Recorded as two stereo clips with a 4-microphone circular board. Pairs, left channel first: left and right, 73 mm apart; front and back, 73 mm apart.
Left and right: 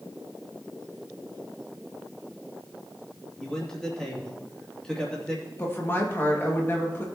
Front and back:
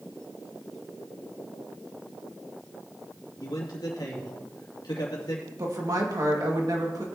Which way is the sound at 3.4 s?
10° left.